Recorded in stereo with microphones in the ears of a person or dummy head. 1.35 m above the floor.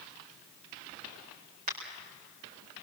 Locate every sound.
1.7 s a crack: 45° right (ahead or behind), 5 m